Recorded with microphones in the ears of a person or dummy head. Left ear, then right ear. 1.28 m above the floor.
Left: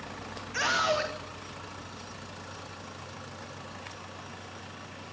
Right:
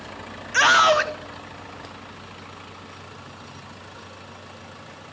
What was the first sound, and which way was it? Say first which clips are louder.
A scream: right 11 dB; 45° right (ahead or behind).